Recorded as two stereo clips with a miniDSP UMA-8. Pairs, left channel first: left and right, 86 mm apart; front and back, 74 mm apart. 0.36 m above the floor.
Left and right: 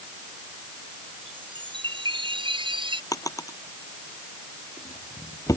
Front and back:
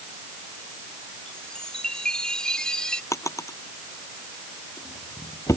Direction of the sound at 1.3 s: 80° right.